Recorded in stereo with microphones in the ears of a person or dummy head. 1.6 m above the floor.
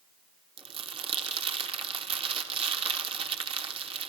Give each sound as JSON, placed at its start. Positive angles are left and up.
{"t": 0.6, "sound": "crumpling", "side_deg": -30, "distance_m": 3.5}